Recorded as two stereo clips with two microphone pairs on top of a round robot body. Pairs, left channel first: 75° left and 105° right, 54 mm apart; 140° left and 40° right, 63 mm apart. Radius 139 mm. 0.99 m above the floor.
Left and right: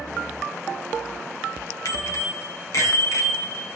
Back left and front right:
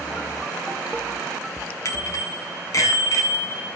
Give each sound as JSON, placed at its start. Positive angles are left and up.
{"t": 1.9, "sound": "a bicycle bell", "azimuth_deg": 100, "distance_m": 7.5}